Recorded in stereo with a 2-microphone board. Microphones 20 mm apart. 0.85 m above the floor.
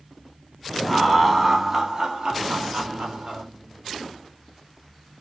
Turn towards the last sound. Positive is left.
turn(degrees=-65)  # may be behind; listen again after turning